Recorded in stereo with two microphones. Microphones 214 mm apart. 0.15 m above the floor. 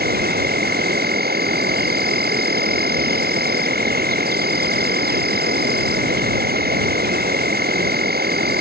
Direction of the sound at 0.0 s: 45° right (ahead or behind).